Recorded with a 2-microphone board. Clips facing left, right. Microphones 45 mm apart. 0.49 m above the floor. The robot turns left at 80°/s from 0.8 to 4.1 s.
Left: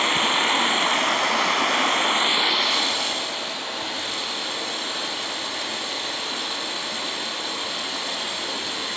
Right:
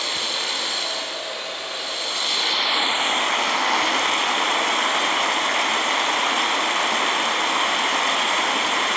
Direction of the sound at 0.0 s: 145° left.